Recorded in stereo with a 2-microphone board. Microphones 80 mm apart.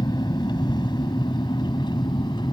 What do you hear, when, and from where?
0.0 s an aircraft: 60° left (ahead or behind); by 2.5 s 65° left (ahead or behind)